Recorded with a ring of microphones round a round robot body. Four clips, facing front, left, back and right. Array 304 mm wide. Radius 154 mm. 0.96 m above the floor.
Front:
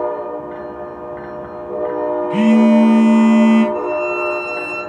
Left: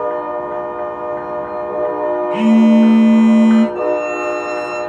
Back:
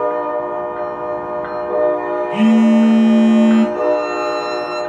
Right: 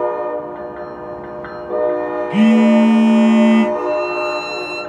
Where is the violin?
100° right, 7 m.